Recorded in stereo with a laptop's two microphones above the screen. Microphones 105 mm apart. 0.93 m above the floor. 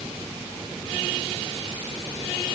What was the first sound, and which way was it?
Only background noise.